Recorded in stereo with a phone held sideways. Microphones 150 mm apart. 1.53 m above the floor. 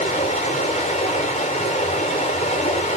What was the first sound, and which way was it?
Running water, 45° left (ahead or behind).